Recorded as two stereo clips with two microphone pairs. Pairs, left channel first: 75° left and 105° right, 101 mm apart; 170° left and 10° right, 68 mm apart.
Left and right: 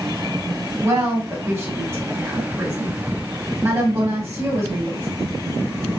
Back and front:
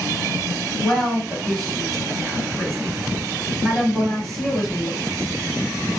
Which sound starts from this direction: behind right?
A woman speaking, at 0.8 s.